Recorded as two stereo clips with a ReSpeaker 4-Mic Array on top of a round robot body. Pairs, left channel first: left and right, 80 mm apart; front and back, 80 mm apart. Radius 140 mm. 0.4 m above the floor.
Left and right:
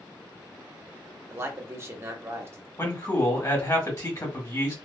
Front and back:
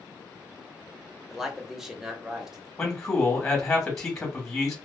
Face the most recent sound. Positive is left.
turn(degrees=75)